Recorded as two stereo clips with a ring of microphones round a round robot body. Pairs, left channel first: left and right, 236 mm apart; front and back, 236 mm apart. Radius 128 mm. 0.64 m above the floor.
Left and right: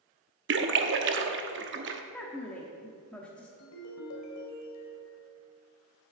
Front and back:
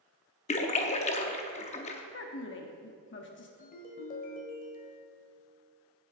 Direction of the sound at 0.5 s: 60° right.